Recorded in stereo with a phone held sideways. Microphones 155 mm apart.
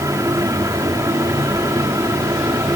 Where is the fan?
20° right (ahead or behind).